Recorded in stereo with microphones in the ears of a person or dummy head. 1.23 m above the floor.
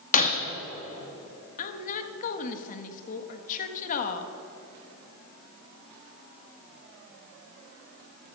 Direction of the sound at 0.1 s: 45° left (ahead or behind).